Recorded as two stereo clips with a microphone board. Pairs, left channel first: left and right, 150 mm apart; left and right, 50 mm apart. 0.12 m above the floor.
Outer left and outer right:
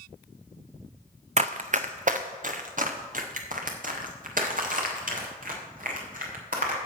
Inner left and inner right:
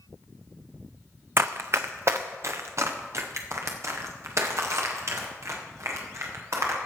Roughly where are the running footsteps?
Right.